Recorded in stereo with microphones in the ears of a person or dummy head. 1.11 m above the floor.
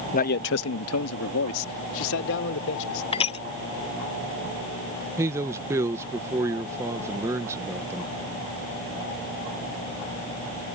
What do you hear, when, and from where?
0.1 s a man speaking: 35° left (ahead or behind); by 3.0 s 70° left (ahead or behind)
3.1 s crushing: 30° left (ahead or behind)
5.2 s a man speaking: 15° right (ahead or behind)